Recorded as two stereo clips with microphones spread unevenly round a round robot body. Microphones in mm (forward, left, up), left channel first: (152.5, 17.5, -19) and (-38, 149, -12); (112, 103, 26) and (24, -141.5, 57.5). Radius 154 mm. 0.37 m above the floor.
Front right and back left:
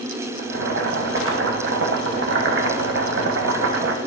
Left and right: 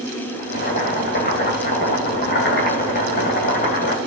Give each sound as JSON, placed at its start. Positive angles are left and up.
{"t": 0.4, "sound": "boiling", "azimuth_deg": 120, "distance_m": 1.6}